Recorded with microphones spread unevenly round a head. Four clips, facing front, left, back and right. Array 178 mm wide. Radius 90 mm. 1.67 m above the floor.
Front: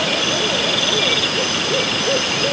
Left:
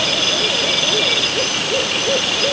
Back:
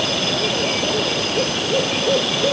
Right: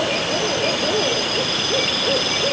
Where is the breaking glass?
No breaking glass in this recording.